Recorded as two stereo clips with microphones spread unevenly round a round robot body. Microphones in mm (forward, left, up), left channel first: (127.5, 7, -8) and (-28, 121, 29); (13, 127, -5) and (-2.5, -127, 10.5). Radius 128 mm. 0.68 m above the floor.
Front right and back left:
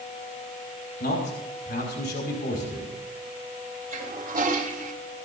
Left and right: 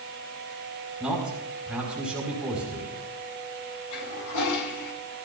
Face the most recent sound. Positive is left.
turn(degrees=95)